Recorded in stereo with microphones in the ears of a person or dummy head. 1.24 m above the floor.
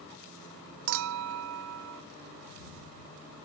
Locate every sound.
0.9 s a clink: 75° right (ahead or behind)